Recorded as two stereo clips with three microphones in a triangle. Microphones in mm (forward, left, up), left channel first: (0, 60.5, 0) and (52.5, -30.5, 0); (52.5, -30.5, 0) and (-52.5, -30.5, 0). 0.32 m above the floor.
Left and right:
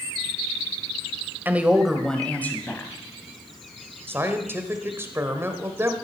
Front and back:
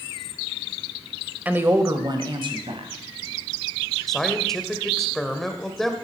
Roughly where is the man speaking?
Right.